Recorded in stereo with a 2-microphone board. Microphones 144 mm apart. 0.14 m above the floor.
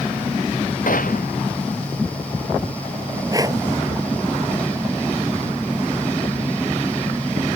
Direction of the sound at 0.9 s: 70° left (ahead or behind).